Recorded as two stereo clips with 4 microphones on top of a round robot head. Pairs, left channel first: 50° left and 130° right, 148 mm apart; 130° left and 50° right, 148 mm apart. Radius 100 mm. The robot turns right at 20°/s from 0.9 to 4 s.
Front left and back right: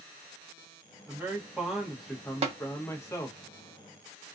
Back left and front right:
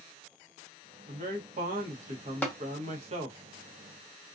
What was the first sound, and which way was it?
A man speaking, 60° right.